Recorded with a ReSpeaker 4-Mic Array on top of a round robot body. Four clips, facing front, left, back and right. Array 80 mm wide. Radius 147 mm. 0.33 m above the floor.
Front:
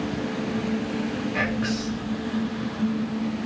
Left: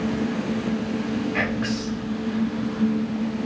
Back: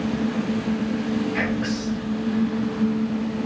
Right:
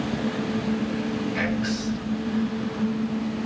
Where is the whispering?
85° left, 1.9 m.